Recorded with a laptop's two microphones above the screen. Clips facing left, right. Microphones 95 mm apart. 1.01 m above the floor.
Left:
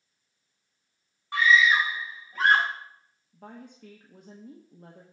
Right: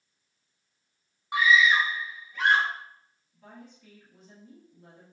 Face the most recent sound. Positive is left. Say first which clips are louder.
# left 4 dB
turn(degrees=60)  # may be behind; listen again after turning